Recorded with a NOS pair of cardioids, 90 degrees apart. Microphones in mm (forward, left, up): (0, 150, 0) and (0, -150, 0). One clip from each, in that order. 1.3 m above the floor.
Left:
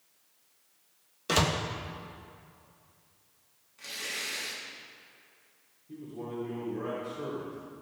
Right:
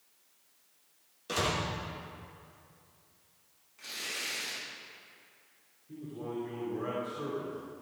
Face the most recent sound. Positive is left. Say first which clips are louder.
# even
turn(degrees=10)